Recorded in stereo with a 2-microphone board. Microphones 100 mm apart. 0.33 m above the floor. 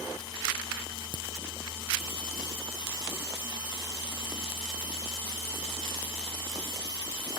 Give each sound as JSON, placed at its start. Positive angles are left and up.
{"t": 1.1, "sound": "a crack", "side_deg": 45, "distance_m": 1.4}